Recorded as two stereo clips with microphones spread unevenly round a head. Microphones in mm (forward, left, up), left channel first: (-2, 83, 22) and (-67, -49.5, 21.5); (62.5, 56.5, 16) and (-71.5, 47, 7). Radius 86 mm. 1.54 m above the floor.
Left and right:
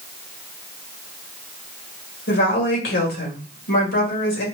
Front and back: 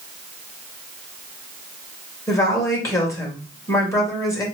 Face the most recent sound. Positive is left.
turn(degrees=75)